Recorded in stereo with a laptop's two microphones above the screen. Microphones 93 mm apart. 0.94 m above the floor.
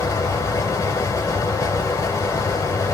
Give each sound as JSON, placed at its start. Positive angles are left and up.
{"t": 0.0, "sound": "a fan", "side_deg": 30, "distance_m": 0.9}